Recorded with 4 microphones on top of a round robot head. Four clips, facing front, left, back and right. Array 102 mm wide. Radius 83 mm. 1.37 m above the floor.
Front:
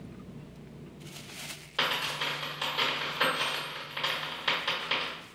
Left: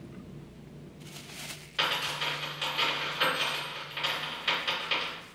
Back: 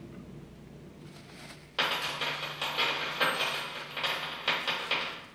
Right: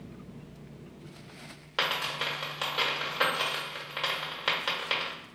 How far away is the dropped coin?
About 1.5 m.